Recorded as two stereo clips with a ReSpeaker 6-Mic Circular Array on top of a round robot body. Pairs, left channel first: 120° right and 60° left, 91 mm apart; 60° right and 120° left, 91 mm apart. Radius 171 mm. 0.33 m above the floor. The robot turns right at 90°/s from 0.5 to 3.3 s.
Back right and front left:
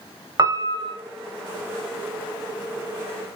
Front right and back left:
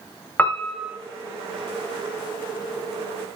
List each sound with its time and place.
0.4 s a piano: 10° left, 1.4 m; by 1.0 s 55° left, 1.4 m